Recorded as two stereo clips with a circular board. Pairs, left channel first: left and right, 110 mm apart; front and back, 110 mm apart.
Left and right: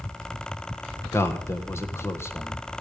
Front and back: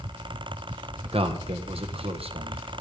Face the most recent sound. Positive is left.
turn(degrees=155)